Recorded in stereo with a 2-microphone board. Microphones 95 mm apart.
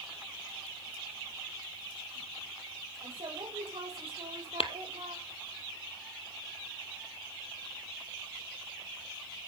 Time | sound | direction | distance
3.0 | a woman speaking | 75° right (ahead or behind) | 7 m
4.6 | tapping | 70° left (ahead or behind) | 1.2 m